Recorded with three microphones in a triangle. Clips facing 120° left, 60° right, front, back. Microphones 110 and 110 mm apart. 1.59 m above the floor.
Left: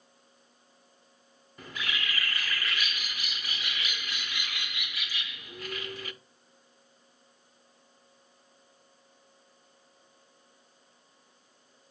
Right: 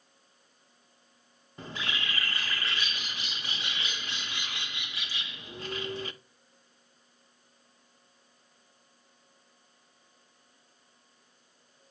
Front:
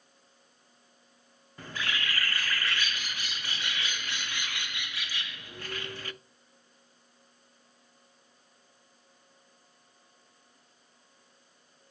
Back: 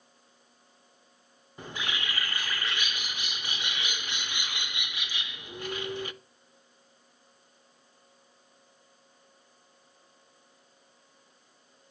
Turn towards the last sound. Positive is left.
turn(degrees=-110)